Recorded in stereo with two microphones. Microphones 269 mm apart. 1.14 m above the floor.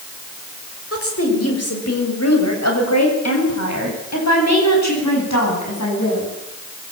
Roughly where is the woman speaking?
Left.